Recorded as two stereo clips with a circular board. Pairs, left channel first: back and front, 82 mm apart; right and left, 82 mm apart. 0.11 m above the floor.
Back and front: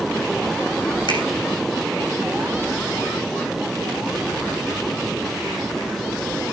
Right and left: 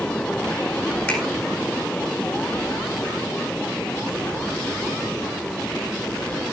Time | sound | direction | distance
1.1 | a finger snap | 165° right | 4 m